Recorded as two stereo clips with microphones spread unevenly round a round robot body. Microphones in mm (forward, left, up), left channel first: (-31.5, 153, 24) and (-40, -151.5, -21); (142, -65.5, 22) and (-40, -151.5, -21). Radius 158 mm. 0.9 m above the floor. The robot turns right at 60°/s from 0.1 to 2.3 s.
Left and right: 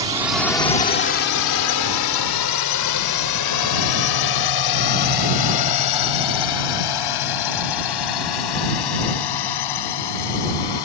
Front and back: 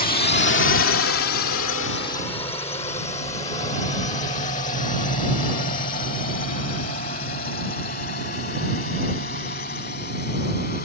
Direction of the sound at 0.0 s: 20° right.